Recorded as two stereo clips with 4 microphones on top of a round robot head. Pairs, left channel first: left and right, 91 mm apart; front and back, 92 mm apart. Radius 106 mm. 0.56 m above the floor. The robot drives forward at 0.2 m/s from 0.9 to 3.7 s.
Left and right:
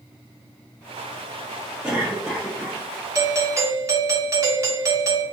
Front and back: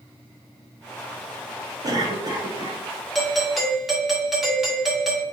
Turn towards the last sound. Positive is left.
turn(degrees=-95)